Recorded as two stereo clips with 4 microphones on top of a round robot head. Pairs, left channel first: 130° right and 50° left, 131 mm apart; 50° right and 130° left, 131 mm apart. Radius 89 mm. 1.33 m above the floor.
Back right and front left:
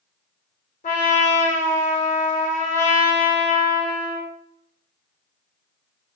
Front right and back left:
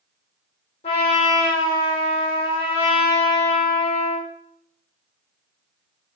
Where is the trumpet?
100° right, 2.5 m.